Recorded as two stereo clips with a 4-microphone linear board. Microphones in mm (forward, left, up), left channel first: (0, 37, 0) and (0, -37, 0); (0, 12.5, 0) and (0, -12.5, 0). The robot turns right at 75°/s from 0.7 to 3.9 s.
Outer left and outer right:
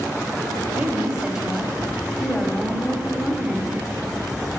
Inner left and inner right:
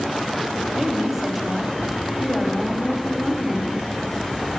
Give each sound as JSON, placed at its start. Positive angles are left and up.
{"t": 0.8, "sound": "a woman speaking", "side_deg": -20, "distance_m": 1.0}